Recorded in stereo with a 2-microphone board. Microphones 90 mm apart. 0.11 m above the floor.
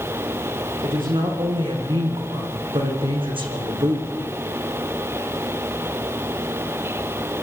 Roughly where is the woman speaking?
Right.